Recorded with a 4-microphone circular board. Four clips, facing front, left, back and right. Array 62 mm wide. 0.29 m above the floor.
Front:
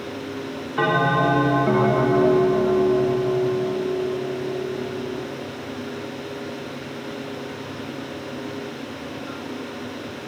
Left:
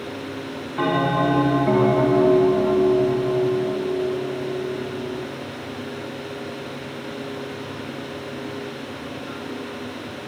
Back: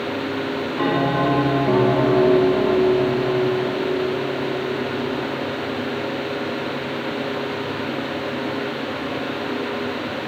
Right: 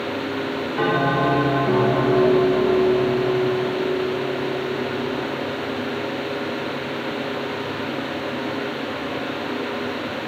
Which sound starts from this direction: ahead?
A bell, at 0.8 s.